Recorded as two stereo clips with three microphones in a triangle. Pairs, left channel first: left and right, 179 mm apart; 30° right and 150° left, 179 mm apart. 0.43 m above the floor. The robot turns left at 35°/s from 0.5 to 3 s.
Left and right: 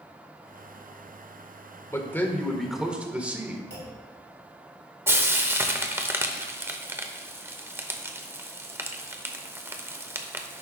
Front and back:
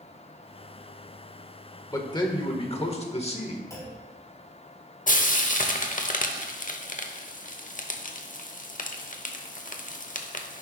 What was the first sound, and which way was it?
A man speaking, 25° left.